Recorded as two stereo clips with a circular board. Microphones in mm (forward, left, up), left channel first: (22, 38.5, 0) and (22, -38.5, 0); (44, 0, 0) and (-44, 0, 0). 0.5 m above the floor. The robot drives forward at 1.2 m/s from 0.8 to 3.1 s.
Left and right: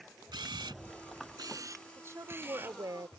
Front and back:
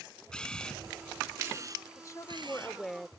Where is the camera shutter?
80° right; by 2.8 s 155° right.